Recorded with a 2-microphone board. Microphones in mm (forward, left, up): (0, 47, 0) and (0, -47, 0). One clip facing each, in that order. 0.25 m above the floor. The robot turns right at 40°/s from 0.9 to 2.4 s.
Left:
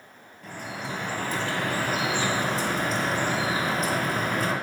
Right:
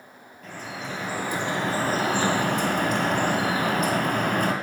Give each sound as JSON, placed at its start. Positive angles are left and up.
{"t": 0.4, "sound": "dripping", "azimuth_deg": 175, "distance_m": 1.2}